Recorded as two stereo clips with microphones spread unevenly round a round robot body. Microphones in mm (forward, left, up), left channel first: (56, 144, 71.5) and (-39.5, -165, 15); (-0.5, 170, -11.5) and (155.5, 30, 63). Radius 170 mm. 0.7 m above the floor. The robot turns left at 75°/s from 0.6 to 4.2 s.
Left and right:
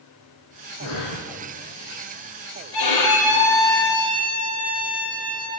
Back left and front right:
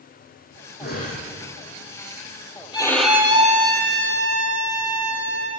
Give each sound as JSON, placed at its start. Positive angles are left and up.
{"t": 0.8, "sound": "breathing", "azimuth_deg": 110, "distance_m": 9.5}
{"t": 2.7, "sound": "a violin", "azimuth_deg": 65, "distance_m": 6.0}